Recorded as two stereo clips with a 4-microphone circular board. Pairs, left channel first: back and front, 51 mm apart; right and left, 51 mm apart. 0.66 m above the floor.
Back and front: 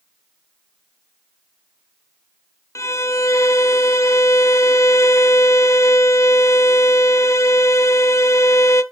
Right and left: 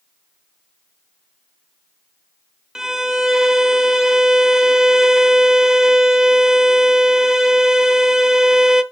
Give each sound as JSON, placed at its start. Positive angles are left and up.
{"t": 2.8, "sound": "a violin", "azimuth_deg": 170, "distance_m": 0.5}